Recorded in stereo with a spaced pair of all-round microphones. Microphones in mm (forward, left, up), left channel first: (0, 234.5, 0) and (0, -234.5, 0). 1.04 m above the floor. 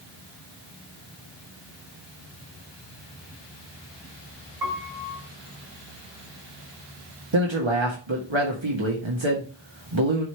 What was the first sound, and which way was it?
A piano, 50° right (ahead or behind).